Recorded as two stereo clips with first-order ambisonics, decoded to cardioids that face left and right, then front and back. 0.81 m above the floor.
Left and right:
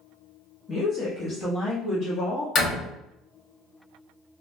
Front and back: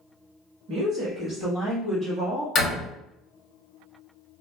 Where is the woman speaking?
160° left, 1.1 m; by 2.5 s 100° left, 1.4 m.